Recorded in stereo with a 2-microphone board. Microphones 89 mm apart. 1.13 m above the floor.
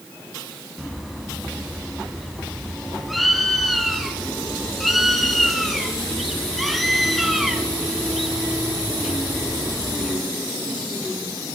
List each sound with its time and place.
0.8 s a bird: centre (ahead or behind), 3 m